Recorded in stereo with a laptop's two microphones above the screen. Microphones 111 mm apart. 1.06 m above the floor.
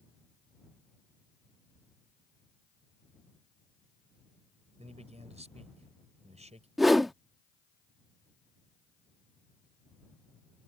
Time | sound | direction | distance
4.8 | a man speaking | 80° right | ?
6.8 | a whoosh | centre (ahead or behind) | ?